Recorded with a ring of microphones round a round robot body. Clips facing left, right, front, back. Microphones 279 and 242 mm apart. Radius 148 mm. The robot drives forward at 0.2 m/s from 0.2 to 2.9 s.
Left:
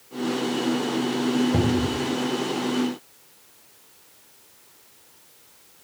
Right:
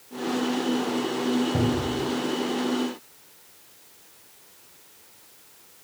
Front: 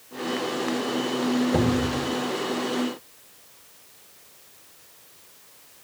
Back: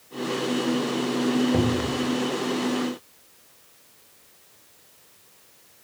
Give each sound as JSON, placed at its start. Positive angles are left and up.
{"t": 1.5, "sound": "a cupboard door", "azimuth_deg": 90, "distance_m": 1.4}